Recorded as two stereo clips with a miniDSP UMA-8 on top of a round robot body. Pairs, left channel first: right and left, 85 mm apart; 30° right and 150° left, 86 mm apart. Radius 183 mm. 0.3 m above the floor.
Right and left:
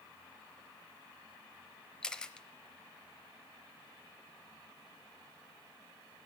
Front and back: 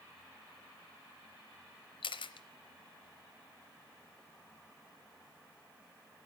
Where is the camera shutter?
10° right, 0.7 m.